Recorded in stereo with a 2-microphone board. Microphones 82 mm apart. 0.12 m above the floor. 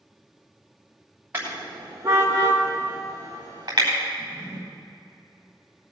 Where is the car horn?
25° right (ahead or behind), 5.5 m; by 3.9 s 50° right (ahead or behind), 6 m.